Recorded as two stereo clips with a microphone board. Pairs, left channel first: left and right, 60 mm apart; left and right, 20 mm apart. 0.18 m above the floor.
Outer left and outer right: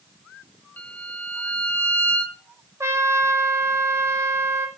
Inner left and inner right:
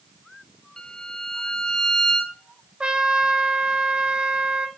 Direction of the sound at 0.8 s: 30° left (ahead or behind).